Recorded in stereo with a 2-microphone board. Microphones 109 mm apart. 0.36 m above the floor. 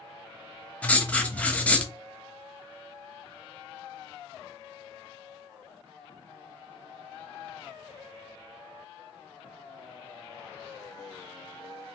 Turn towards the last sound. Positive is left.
turn(degrees=10)  # may be behind; listen again after turning